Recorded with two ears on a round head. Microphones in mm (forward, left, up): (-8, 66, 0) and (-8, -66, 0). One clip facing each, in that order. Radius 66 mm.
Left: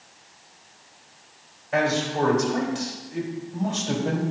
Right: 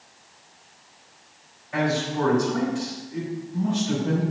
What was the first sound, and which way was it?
A man speaking, 65° left (ahead or behind).